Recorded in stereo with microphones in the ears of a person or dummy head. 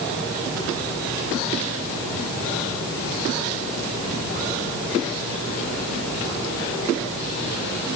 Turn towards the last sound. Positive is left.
No sound to turn to.